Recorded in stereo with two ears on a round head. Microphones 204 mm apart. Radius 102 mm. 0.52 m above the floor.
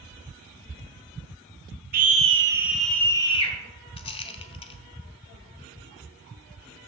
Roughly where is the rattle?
Left.